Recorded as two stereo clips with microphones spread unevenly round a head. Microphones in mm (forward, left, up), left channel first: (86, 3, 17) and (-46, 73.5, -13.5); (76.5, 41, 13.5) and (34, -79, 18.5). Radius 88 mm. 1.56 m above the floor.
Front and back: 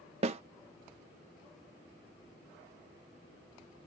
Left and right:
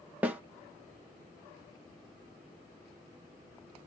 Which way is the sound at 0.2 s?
175° right.